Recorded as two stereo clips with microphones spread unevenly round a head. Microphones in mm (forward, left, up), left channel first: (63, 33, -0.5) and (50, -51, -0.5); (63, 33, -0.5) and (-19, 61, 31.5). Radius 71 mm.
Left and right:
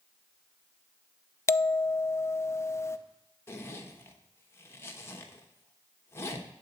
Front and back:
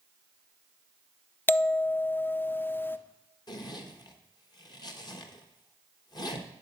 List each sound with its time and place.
1.5 s a bell: 30° left, 0.6 m
3.5 s a zipper: 20° left, 1.1 m